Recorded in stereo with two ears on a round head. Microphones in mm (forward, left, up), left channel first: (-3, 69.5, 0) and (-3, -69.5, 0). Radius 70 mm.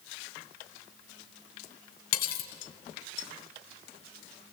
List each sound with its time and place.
2.1 s cutlery clinking: 65° left (ahead or behind), 2.5 m